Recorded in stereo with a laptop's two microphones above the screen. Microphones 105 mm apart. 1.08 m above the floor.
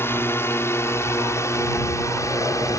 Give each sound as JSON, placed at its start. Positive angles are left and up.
{"t": 0.0, "sound": "a drone", "side_deg": 25}